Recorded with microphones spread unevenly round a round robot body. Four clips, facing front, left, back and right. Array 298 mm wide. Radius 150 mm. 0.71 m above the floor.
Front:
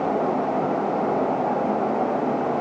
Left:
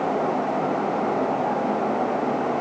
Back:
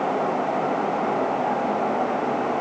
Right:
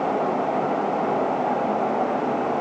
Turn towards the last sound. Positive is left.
No sound to turn to.